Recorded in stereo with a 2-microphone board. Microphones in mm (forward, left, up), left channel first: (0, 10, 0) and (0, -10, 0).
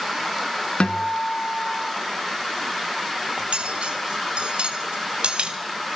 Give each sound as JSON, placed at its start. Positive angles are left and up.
{"t": 0.8, "sound": "a guitar", "side_deg": 65, "distance_m": 1.8}
{"t": 3.4, "sound": "cutlery clinking", "side_deg": -75, "distance_m": 2.5}